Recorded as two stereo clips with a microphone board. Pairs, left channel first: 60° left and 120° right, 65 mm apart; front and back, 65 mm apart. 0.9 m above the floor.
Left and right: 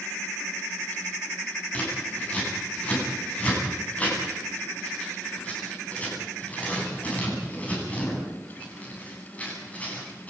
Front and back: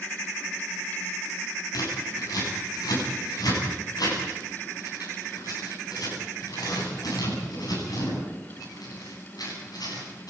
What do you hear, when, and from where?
1.7 s scissors: 10° right, 9.5 m